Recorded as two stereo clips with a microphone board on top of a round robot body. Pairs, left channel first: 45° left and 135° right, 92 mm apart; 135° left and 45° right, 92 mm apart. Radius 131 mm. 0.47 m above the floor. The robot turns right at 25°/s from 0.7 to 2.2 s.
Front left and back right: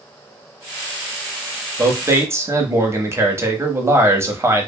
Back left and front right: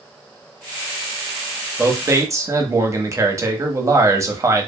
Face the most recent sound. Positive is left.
turn(degrees=-85)